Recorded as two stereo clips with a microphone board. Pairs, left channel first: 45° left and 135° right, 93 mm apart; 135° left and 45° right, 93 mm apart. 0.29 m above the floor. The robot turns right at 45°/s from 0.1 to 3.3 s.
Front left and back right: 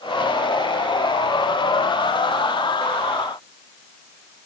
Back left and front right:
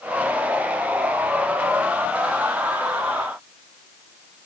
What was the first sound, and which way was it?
Only background noise.